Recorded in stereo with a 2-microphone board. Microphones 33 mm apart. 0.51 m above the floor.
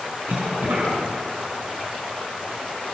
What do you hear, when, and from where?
0.3 s a cough: 80° right, 6.5 m